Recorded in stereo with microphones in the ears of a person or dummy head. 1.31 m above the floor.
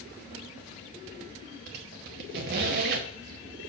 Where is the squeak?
45° right (ahead or behind), 0.8 m.